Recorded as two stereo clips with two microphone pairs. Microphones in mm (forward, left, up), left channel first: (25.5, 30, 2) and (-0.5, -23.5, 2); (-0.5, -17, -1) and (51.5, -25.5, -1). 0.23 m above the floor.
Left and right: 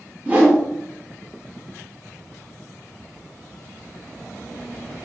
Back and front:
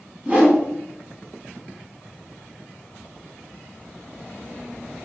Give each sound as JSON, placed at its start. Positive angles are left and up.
{"t": 0.2, "sound": "a whoosh", "azimuth_deg": -60, "distance_m": 1.5}